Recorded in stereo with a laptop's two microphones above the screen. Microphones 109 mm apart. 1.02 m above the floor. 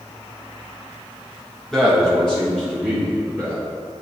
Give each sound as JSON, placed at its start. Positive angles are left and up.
{"t": 1.7, "sound": "a man speaking", "side_deg": 5, "distance_m": 1.4}